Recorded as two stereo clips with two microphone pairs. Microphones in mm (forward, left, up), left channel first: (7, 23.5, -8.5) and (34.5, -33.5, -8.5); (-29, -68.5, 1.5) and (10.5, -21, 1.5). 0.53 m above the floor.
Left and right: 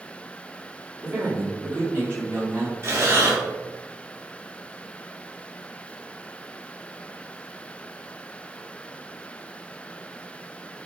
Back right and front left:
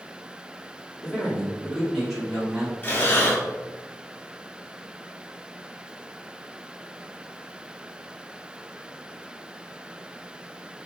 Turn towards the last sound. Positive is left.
turn(degrees=-90)